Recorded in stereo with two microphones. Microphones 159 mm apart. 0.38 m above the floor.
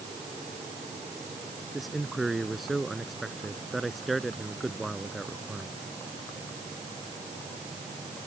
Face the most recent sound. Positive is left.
turn(degrees=0)  # may be behind; listen again after turning